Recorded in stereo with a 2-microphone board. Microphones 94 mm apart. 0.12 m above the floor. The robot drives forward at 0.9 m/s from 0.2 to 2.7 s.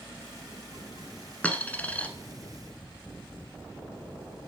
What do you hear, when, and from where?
1.4 s a dropped coin: 15° left (ahead or behind), 0.7 m